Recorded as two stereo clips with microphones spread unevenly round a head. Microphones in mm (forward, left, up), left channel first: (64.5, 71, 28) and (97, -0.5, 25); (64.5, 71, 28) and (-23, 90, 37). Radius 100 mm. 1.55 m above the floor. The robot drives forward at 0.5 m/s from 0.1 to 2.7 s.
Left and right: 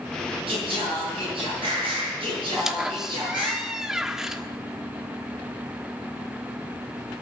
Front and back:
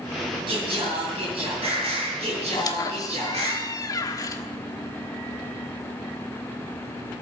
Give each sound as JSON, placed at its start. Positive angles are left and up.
{"t": 0.5, "sound": "singing", "azimuth_deg": -125, "distance_m": 6.0}
{"t": 2.5, "sound": "a squeak", "azimuth_deg": 15, "distance_m": 1.3}